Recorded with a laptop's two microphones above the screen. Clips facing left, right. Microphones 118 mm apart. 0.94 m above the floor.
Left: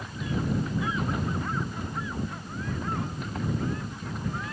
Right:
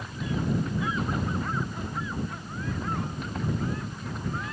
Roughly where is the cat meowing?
No cat meowing in this recording.